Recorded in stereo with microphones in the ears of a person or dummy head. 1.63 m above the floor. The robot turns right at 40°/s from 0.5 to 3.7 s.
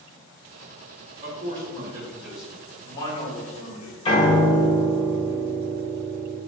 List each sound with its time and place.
1.2 s a man speaking: 50° right, 1.2 m; by 4.0 s 50° left, 1.2 m
4.0 s a piano: 25° left (ahead or behind), 0.9 m